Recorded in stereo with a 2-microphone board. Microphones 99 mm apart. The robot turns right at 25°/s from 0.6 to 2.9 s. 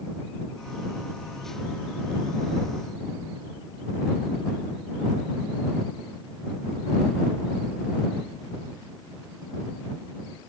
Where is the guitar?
I don't hear a guitar.